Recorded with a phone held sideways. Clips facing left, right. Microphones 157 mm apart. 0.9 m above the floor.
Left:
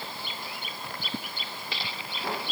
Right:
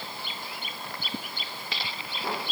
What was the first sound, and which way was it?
Only background noise.